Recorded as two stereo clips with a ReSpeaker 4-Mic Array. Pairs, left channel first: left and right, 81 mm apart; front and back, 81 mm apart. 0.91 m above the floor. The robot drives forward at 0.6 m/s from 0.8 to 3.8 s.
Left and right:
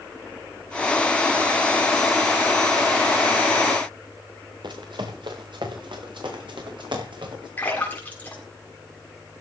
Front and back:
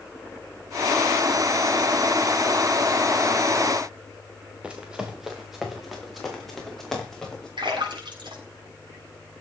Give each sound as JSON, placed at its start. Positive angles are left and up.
{"t": 4.6, "sound": "running footsteps", "azimuth_deg": -105, "distance_m": 3.5}
{"t": 7.6, "sound": "a splash", "azimuth_deg": 160, "distance_m": 7.5}